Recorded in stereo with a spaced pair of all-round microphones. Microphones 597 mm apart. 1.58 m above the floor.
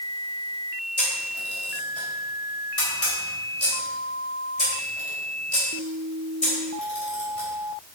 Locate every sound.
1.0 s a camera shutter: 75° left (ahead or behind), 4 m